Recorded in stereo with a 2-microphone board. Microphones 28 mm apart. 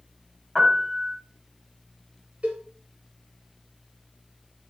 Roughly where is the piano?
Centre.